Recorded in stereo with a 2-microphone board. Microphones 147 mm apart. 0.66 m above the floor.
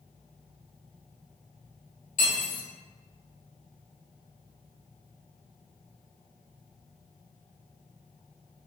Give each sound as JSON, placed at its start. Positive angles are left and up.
{"t": 2.2, "sound": "cutlery clinking", "side_deg": 65, "distance_m": 1.4}